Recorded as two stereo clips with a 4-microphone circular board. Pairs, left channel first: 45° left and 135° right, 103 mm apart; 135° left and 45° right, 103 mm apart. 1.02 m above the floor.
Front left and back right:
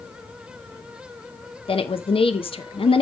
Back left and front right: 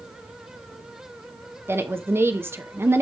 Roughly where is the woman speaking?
Ahead.